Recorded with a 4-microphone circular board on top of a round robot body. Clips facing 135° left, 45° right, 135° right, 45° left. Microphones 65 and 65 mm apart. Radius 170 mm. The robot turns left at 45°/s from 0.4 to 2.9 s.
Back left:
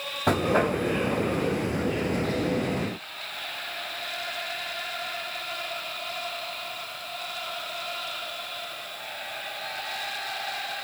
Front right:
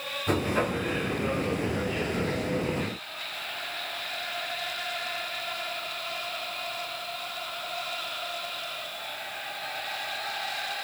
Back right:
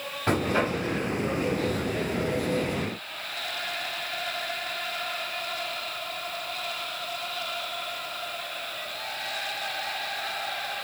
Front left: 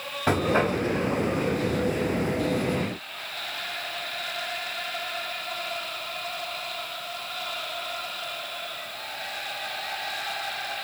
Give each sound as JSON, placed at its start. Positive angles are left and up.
{"t": 0.3, "sound": "knocking", "azimuth_deg": 115, "distance_m": 4.5}